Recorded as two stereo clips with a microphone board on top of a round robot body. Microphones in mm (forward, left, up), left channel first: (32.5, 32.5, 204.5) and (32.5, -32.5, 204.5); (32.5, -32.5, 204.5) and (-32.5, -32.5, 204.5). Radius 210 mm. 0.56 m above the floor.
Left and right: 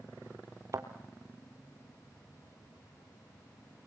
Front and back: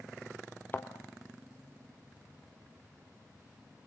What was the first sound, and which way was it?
A thud, 55° right.